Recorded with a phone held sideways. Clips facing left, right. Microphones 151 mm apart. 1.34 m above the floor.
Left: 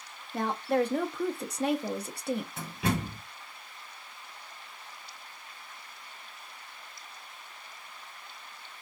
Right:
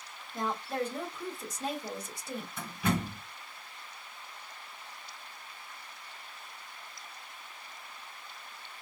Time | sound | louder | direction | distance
0.3 | a woman speaking | left 6 dB | 70° left (ahead or behind) | 0.9 m
2.6 | a door slam | even | 85° left | 3 m